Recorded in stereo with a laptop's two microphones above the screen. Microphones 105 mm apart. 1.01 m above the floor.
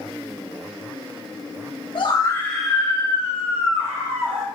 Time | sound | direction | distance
1.9 | a scream | 55° left (ahead or behind) | 0.8 m